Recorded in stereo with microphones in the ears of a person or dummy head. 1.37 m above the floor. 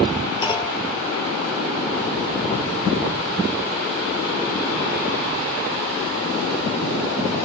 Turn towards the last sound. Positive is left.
turn(degrees=30)  # may be behind; listen again after turning